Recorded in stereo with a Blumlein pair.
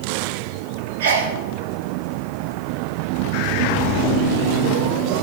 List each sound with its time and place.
1.0 s a sneeze: 55° right, 1.3 m